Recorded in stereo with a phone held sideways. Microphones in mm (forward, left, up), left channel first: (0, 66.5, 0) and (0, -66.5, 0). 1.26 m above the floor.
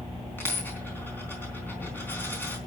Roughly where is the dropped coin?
Centre.